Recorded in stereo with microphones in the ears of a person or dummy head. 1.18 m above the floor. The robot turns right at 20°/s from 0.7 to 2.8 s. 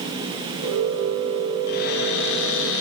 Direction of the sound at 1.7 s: 50° left (ahead or behind).